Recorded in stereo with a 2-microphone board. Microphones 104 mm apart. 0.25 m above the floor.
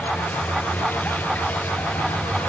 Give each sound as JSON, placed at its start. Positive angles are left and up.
{"t": 0.0, "sound": "a vehicle", "side_deg": 15}